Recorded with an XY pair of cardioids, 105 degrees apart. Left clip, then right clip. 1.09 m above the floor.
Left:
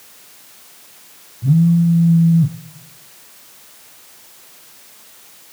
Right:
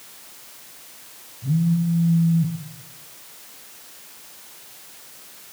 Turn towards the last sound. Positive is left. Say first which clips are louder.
# left 8 dB
turn(degrees=55)